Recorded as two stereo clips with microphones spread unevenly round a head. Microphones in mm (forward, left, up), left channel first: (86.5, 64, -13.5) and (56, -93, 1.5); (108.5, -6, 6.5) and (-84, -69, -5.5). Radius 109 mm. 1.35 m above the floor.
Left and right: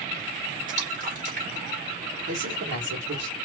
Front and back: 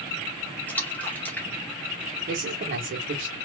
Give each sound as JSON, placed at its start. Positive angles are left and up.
{"t": 0.7, "sound": "a splash", "azimuth_deg": -65, "distance_m": 2.5}
{"t": 2.3, "sound": "a man speaking", "azimuth_deg": -120, "distance_m": 1.4}